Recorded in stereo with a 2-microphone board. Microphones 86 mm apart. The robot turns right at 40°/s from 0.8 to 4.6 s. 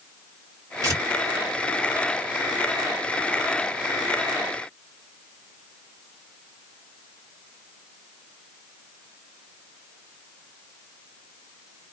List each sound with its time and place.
0.8 s tearing paper: 40° right (ahead or behind), 1.5 m; by 1.0 s 45° right (ahead or behind), 1.5 m